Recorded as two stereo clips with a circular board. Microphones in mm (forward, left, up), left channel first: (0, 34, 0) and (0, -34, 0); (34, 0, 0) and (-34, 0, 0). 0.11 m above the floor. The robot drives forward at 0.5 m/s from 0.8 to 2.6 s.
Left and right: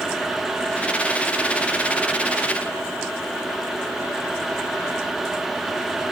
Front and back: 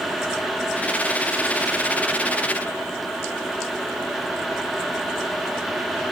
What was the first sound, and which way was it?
Only background noise.